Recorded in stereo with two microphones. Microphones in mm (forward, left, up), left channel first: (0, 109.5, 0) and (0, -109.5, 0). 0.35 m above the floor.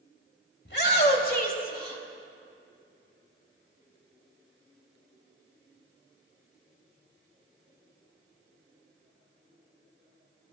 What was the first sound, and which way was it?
A shout, 50° left (ahead or behind).